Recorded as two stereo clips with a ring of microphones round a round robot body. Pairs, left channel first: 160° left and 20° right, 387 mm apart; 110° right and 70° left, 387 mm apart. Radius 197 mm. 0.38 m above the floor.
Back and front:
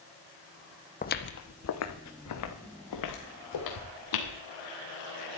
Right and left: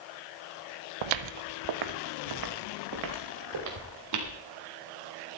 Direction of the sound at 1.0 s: 90° left.